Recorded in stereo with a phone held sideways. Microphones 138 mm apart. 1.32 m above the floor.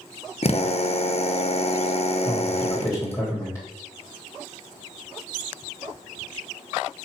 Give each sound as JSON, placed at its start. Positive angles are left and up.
{"t": 0.4, "sound": "a drill", "side_deg": 50, "distance_m": 0.9}
{"t": 2.2, "sound": "a man speaking", "side_deg": 15, "distance_m": 3.0}